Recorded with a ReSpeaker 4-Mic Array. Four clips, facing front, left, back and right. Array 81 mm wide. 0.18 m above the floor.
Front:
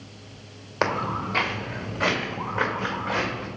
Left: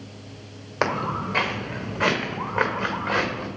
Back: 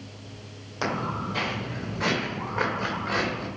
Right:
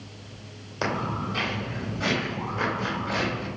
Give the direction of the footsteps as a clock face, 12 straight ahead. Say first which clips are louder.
Left 4 dB, front 3 dB; 10 o'clock.